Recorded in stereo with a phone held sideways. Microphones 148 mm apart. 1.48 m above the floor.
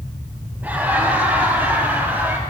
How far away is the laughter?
About 4.5 m.